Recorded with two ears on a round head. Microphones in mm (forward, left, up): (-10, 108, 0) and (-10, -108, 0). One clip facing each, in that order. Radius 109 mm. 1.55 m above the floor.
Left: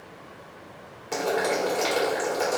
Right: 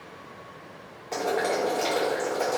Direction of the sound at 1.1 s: 10° left (ahead or behind).